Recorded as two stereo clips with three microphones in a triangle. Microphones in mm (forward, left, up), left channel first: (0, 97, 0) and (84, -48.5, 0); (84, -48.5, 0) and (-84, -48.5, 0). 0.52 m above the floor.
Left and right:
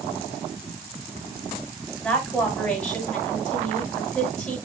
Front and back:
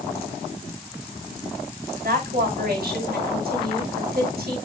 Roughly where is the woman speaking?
Behind right.